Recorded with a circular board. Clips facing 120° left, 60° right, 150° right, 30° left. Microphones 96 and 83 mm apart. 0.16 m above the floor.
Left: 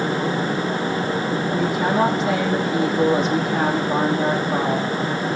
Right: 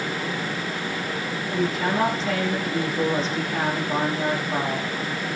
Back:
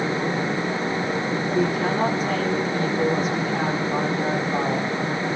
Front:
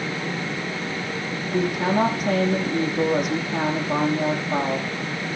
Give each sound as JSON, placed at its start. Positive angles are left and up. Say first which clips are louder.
{"t": 1.5, "sound": "a woman speaking", "louder": "left 2 dB, front 2 dB", "azimuth_deg": 45, "distance_m": 8.5}